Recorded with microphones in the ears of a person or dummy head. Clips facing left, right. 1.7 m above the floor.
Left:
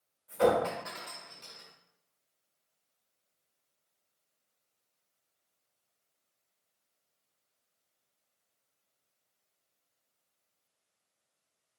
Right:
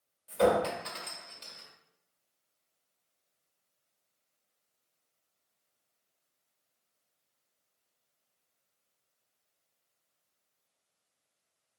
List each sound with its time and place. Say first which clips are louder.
0.3 s a clink: even; 35° right (ahead or behind), 1.2 m